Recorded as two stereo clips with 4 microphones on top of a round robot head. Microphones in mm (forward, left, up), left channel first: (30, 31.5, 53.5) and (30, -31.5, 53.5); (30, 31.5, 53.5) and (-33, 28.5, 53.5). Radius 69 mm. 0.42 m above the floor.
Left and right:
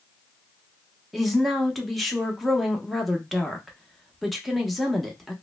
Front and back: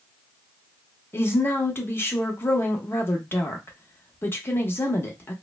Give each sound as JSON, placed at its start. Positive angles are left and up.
{"t": 1.1, "sound": "a woman speaking", "azimuth_deg": 0, "distance_m": 0.8}